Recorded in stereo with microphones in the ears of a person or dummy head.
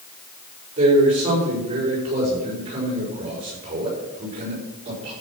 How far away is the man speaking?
About 6 m.